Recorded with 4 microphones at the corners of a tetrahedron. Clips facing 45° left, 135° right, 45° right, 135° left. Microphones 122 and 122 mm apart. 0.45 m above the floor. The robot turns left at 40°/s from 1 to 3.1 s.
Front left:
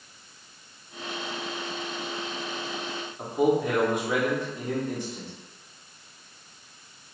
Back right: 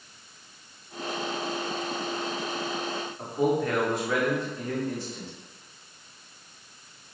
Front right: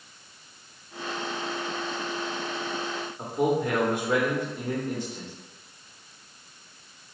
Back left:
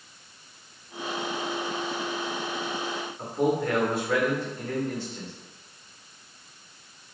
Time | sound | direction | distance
3.2 | a man speaking | straight ahead | 1.2 m